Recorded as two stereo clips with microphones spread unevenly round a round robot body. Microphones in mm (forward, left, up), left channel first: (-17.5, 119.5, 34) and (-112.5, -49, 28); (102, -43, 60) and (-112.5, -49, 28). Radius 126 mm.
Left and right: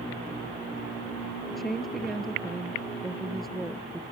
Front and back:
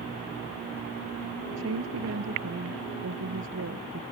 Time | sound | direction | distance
1.5 | a woman speaking | 150° left | ?